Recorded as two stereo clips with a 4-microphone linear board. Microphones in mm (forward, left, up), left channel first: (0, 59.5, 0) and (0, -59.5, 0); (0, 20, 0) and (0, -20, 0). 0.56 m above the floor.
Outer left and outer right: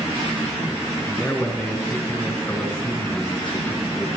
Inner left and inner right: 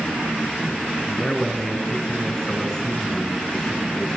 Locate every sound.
1.1 s a man speaking: 15° left (ahead or behind), 3 m